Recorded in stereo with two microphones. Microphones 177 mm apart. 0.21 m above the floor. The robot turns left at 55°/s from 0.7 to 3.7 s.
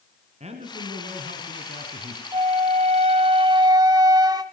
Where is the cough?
I don't hear a cough.